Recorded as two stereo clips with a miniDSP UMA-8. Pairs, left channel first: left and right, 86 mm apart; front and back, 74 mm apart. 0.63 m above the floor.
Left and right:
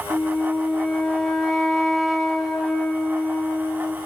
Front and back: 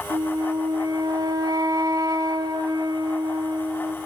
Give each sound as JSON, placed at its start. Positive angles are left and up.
{"t": 0.1, "sound": "a flute", "azimuth_deg": 180, "distance_m": 1.3}